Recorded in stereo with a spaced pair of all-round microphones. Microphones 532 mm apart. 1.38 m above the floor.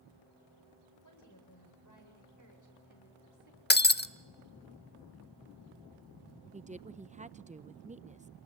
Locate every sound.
1.0 s a woman speaking: 35° left (ahead or behind), 7.5 m
3.7 s breaking glass: 20° left (ahead or behind), 0.6 m
6.5 s a woman speaking: 15° right (ahead or behind), 0.7 m